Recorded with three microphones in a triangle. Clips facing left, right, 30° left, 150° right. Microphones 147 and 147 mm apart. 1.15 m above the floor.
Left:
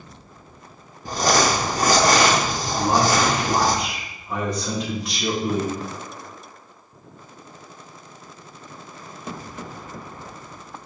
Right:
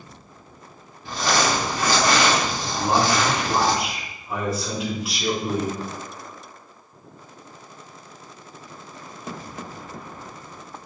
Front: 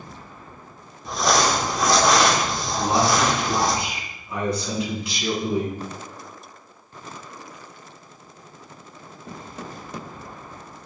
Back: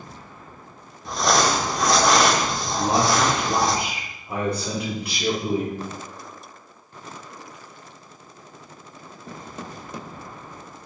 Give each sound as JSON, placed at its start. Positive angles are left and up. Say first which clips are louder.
{"t": 1.1, "sound": "crumpling", "louder": "left 3 dB, even", "azimuth_deg": 120, "distance_m": 0.9}
{"t": 2.8, "sound": "a man speaking", "louder": "left 1 dB, even", "azimuth_deg": -175, "distance_m": 3.0}